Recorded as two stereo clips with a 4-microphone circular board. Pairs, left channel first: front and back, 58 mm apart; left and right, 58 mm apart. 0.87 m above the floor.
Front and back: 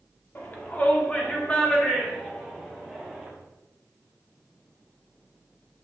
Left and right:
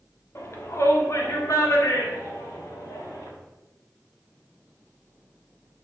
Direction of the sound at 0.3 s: 50° left.